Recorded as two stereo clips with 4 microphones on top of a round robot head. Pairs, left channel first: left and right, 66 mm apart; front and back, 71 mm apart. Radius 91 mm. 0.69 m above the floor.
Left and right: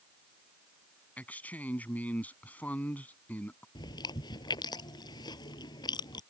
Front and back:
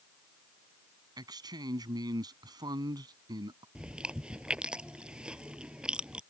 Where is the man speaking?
155° left.